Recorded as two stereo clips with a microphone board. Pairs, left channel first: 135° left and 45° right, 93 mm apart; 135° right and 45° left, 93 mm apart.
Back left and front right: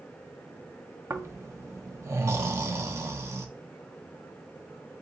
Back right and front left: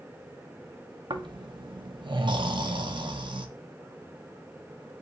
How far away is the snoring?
About 0.6 m.